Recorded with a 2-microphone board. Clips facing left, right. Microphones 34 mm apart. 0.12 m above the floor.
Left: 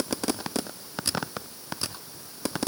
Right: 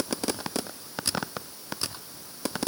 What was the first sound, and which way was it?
Only background noise.